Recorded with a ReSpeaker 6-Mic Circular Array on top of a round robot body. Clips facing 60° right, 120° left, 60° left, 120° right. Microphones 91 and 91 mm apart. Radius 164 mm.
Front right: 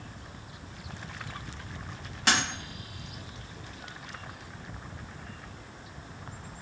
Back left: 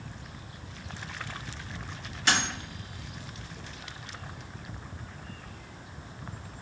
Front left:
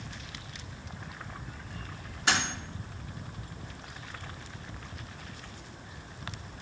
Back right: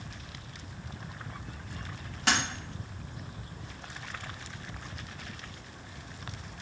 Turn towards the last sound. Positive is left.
turn(degrees=-100)